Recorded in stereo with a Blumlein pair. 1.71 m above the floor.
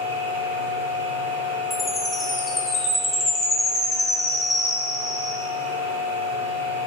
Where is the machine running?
65° right, 1.7 m.